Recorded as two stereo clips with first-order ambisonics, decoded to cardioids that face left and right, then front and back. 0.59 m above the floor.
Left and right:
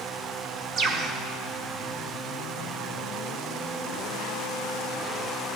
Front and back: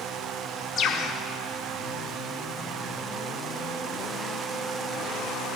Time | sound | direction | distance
0.8 | a bird | 45° right | 0.8 m